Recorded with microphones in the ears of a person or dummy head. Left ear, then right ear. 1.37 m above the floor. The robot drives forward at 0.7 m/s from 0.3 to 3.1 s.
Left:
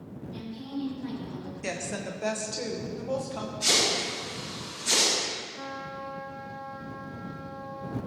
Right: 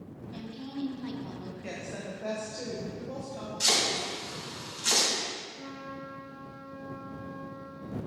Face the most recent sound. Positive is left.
turn(degrees=45)  # may be behind; listen again after turning